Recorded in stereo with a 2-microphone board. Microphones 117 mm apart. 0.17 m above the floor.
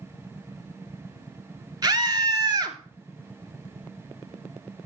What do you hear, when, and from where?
1.8 s a scream: 35° right (ahead or behind), 2 m